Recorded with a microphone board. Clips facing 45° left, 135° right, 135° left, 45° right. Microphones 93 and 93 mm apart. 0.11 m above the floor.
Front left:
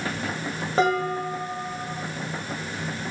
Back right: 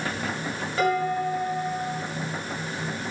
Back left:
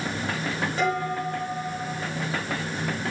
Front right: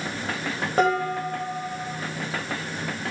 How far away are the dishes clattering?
About 7.5 m.